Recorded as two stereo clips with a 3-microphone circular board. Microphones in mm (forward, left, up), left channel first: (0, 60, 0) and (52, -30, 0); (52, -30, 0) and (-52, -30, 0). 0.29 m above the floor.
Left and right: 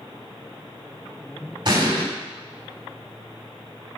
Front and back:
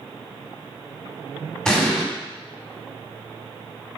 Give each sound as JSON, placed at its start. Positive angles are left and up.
{"t": 1.6, "sound": "an explosion", "azimuth_deg": -85, "distance_m": 2.5}